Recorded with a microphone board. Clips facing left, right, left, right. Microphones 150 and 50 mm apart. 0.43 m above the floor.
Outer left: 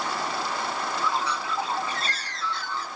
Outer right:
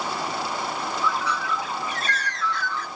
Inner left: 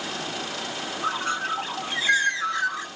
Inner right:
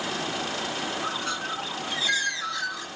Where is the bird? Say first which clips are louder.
Outer right 2 dB, inner left 4 dB; 35° left (ahead or behind), 0.9 m.